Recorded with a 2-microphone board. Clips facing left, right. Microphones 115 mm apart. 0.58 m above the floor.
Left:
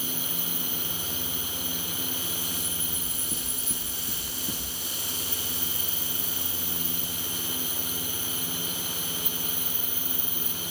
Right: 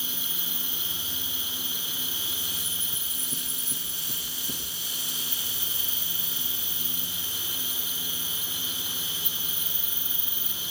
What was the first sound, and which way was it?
An insect, 45° left (ahead or behind).